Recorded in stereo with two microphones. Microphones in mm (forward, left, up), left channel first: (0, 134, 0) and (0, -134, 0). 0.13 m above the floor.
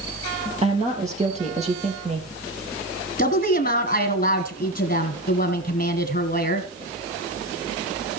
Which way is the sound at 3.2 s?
30° left (ahead or behind).